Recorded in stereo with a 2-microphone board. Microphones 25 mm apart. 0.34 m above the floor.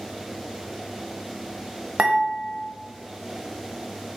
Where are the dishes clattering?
50° right (ahead or behind), 0.8 m.